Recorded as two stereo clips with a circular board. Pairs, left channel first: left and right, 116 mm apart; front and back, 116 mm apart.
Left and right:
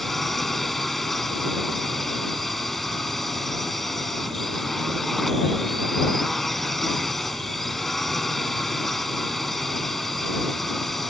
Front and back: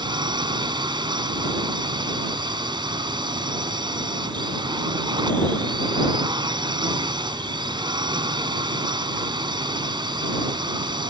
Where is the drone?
175° left.